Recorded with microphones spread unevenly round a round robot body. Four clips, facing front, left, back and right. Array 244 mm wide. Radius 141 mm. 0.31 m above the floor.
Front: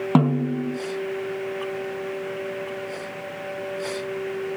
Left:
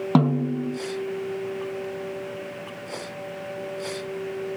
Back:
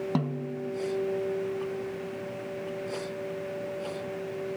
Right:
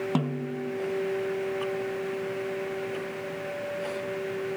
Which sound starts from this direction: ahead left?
A snare drum, at 0.1 s.